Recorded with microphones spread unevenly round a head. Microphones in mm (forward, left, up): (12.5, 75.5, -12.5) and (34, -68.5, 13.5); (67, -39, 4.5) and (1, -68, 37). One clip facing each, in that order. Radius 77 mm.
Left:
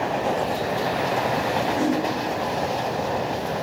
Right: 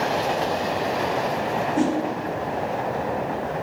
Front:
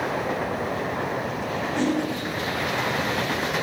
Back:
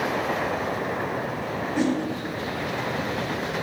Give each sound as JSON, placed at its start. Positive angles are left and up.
{"t": 1.8, "sound": "a whoosh", "azimuth_deg": -45, "distance_m": 0.7}